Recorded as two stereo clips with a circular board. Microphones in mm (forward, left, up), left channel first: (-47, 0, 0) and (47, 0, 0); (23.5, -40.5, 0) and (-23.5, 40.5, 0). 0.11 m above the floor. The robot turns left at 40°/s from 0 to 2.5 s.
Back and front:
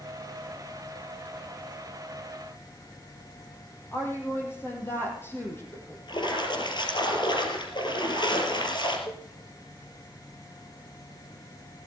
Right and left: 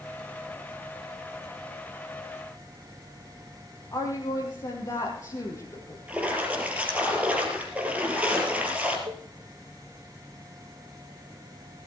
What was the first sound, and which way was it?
A woman speaking, 115° right.